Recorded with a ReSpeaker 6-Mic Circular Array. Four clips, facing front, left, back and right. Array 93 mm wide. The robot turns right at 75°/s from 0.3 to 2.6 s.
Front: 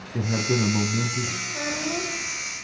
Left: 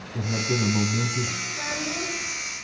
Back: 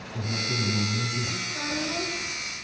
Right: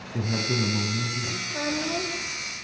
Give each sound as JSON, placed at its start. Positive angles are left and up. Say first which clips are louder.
{"t": 0.1, "sound": "a man speaking", "louder": "left 1 dB, front 7 dB", "azimuth_deg": -15, "distance_m": 2.0}
{"t": 1.5, "sound": "a child speaking", "louder": "right 3 dB, front 2 dB", "azimuth_deg": -80, "distance_m": 7.0}